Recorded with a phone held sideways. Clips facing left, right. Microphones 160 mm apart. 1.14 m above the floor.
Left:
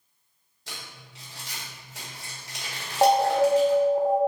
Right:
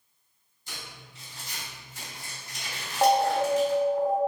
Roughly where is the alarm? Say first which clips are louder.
Left 3 dB; left.